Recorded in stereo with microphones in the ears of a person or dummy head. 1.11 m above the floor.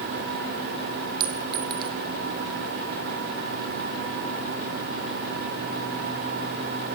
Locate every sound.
1.2 s a clink: 25° right (ahead or behind), 3 m